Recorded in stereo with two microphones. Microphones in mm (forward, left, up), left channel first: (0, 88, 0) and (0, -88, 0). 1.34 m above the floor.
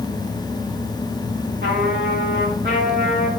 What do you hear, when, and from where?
1.6 s a trumpet: 60° right (ahead or behind), 3 m